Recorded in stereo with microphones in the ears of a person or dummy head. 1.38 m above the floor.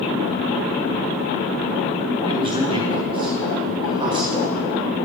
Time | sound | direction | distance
2.3 | a man speaking | 25° right (ahead or behind) | 2.5 m